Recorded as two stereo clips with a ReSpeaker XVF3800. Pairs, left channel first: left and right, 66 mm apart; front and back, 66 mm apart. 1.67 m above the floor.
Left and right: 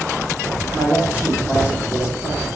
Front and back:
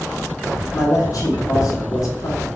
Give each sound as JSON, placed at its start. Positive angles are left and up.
{"t": 0.7, "sound": "a man speaking", "azimuth_deg": -20, "distance_m": 1.0}